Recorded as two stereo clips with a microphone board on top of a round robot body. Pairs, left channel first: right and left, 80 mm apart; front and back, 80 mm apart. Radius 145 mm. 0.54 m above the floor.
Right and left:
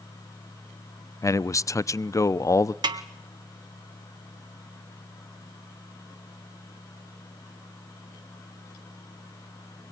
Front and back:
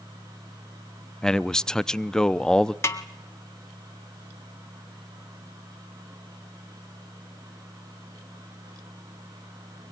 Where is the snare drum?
60° left, 1.6 m.